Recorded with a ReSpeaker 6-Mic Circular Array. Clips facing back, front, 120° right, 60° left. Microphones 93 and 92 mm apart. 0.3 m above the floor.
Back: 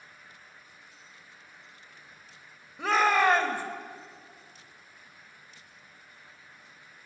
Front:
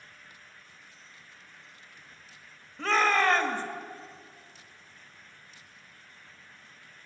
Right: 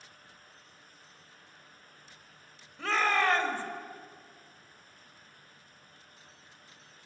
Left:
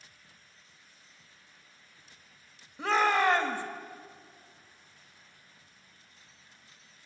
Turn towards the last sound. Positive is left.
turn(degrees=115)